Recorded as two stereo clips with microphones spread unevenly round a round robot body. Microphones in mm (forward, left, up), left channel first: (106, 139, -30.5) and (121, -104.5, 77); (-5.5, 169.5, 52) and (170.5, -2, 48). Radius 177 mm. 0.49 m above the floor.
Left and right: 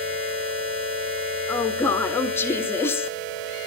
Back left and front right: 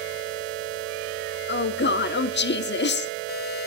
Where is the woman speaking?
135° left, 0.9 m.